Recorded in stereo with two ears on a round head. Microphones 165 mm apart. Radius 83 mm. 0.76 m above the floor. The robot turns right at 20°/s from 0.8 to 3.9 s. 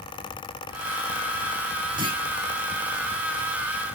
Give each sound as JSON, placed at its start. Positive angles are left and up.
{"t": 2.0, "sound": "a clunk", "side_deg": -25, "distance_m": 4.5}